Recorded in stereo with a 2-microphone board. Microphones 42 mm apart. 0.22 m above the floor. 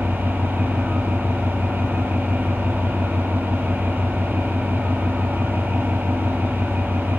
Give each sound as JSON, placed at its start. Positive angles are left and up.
{"t": 0.0, "sound": "an engine running", "side_deg": -55, "distance_m": 2.0}